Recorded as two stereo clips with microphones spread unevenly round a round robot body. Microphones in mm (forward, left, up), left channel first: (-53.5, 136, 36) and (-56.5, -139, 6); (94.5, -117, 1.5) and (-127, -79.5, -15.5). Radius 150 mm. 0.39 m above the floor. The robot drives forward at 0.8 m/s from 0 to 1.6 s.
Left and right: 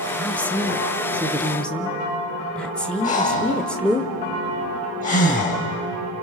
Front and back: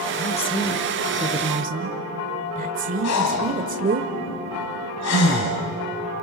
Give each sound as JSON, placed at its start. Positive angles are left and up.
{"t": 0.2, "sound": "a woman speaking", "azimuth_deg": -5, "distance_m": 1.0}
{"t": 3.0, "sound": "breathing", "azimuth_deg": 20, "distance_m": 2.0}